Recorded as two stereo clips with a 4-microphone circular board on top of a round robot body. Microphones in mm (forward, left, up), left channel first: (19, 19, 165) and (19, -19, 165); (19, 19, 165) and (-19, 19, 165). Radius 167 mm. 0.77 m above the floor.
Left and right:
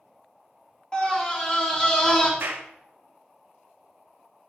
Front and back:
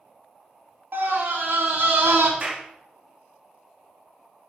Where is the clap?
125° right, 1.9 m.